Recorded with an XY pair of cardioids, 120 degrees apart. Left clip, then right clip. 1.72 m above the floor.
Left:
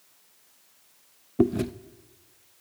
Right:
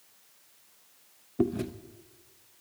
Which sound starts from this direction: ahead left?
Chewing, at 1.4 s.